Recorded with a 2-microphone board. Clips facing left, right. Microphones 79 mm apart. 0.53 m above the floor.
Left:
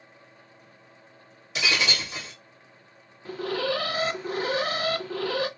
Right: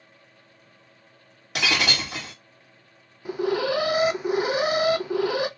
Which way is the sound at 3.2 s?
15° right (ahead or behind).